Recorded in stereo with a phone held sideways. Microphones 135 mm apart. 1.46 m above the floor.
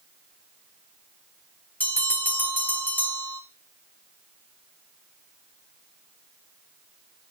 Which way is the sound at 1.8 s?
10° left (ahead or behind).